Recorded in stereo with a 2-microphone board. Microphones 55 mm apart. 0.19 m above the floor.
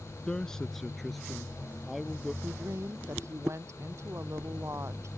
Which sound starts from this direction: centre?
A man speaking, at 0.3 s.